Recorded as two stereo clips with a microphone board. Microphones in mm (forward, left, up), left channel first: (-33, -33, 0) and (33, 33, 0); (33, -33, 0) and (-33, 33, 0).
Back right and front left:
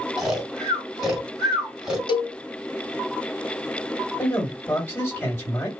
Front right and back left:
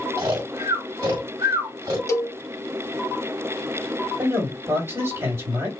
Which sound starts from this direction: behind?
A man speaking, at 4.2 s.